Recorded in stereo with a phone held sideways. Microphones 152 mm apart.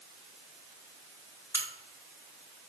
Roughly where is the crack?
Centre.